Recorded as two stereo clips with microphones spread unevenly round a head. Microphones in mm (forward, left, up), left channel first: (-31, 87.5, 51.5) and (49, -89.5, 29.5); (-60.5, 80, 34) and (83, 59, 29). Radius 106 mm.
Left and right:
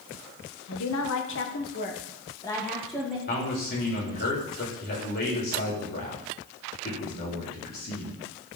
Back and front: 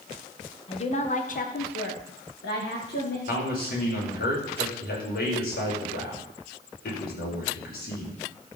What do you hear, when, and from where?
0.7 s a woman speaking: 120° left, 1.9 m; by 3.2 s 150° right, 2 m
3.3 s a man speaking: 160° left, 5 m